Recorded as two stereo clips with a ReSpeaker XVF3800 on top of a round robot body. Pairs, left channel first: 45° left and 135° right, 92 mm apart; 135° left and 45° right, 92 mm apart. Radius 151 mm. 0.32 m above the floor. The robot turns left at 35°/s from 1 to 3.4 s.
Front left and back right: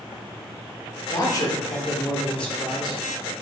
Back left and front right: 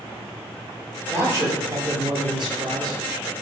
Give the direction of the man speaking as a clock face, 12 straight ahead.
11 o'clock.